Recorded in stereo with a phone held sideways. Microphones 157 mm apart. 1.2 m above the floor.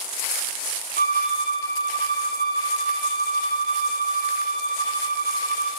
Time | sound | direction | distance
1.0 | a violin | 75° left (ahead or behind) | 0.9 m